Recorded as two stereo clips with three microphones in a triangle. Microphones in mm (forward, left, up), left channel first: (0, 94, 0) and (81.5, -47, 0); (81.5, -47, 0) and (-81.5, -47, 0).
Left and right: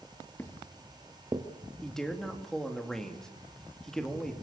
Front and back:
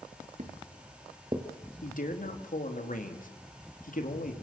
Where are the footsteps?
165° right, 2 m; by 1.5 s 120° right, 2 m.